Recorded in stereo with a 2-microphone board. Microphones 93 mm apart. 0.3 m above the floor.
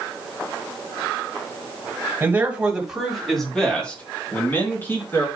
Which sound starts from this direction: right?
A man speaking, at 2.2 s.